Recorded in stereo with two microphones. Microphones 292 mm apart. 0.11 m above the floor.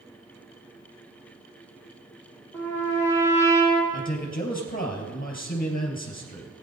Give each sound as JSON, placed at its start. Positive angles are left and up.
{"t": 2.5, "sound": "a trumpet", "side_deg": 10, "distance_m": 5.5}
{"t": 3.9, "sound": "a man speaking", "side_deg": 30, "distance_m": 3.0}